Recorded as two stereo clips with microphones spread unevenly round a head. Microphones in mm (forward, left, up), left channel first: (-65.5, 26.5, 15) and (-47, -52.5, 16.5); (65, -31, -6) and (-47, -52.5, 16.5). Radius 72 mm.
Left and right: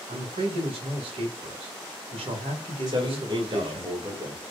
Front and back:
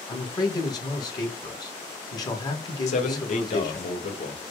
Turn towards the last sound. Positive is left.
turn(degrees=-10)